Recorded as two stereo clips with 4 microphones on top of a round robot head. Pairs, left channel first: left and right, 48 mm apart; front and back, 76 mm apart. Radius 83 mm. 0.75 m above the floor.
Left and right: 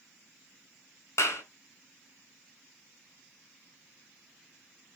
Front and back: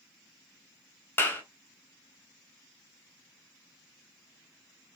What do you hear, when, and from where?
1.2 s a clap: 65° left, 4 m